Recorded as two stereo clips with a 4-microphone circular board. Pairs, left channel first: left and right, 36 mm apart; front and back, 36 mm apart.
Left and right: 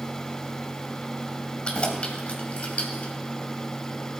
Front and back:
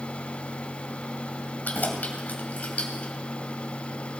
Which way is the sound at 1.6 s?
30° left.